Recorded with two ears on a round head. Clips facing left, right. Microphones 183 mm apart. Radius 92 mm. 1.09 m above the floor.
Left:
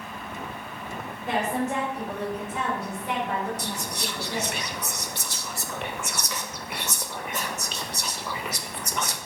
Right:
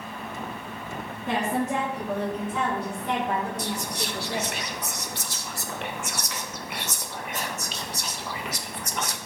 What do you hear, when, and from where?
1.3 s a woman speaking: 90° right, 1.4 m; by 4.5 s 80° right, 3 m
3.6 s whispering: 80° left, 0.6 m